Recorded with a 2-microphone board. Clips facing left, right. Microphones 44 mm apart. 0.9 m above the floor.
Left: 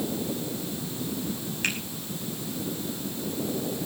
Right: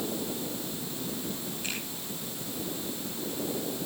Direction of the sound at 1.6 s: 75° left (ahead or behind).